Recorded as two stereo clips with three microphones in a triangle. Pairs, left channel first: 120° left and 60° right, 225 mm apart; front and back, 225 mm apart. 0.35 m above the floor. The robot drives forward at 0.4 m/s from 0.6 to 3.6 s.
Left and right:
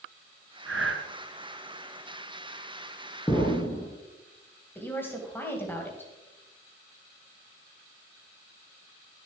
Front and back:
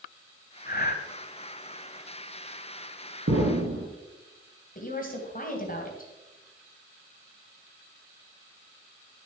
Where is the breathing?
45° right, 1.1 m; by 1.0 s 50° right, 1.0 m.